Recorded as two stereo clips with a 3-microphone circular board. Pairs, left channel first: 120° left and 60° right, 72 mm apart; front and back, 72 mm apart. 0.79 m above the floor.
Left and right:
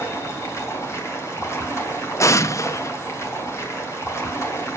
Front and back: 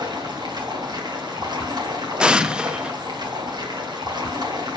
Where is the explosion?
105° left, 0.5 m.